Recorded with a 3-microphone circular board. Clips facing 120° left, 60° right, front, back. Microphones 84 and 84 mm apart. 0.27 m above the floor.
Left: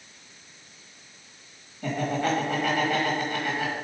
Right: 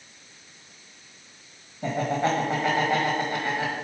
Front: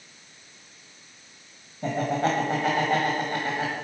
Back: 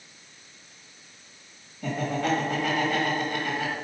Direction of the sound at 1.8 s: 15° right.